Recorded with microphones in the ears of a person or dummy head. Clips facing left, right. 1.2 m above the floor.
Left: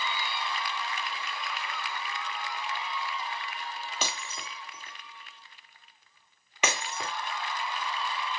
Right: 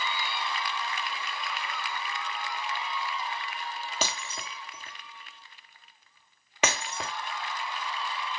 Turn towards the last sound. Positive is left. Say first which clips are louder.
# right 4 dB
turn(degrees=-30)  # may be behind; listen again after turning